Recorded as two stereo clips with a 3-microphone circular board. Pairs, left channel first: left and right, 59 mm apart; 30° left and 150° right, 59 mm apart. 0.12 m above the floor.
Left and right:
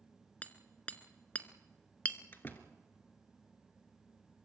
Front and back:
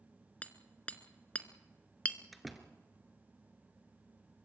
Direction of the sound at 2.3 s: 125° left.